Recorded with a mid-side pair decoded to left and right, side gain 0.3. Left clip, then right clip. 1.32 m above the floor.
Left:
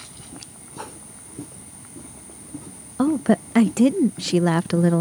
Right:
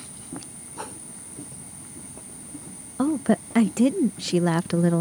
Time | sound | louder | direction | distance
0.8 | a whoosh | even | straight ahead | ?
3.0 | a woman speaking | left 3 dB | 30° left | ?